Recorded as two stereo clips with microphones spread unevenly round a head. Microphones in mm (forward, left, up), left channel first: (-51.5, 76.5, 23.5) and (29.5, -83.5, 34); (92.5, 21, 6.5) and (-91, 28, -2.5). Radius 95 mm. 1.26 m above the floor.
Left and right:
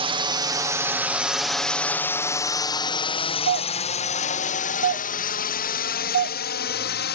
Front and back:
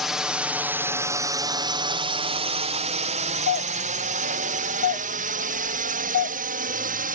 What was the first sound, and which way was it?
A drone, 100° right.